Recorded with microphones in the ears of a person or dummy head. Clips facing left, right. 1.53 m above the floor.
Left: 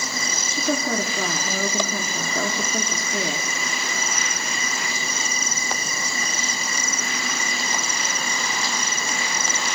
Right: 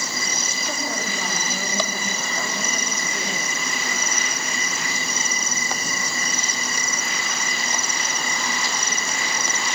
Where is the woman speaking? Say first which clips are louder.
Left 8 dB; 70° left (ahead or behind), 4.5 m.